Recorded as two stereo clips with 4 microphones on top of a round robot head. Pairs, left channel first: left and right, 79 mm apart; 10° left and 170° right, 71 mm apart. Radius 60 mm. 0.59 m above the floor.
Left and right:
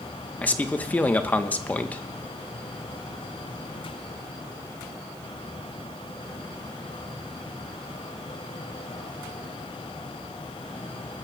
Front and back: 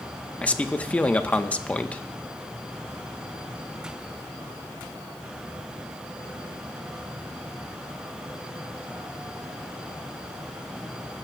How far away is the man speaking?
About 0.9 m.